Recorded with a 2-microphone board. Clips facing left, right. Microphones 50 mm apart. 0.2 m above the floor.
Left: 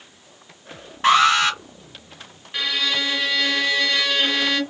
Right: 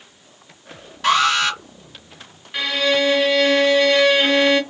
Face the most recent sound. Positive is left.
turn(degrees=-10)  # may be behind; listen again after turning